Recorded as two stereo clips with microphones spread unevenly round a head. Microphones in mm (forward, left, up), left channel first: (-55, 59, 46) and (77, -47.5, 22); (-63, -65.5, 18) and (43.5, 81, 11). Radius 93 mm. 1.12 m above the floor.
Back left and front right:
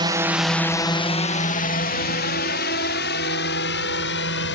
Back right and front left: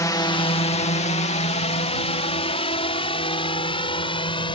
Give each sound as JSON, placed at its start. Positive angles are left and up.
{"t": 0.0, "sound": "a drone", "azimuth_deg": -60}